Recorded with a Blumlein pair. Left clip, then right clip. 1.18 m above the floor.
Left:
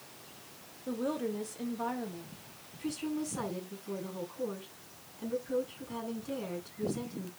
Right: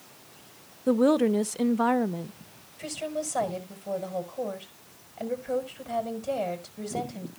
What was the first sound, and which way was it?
A woman speaking, 60° right.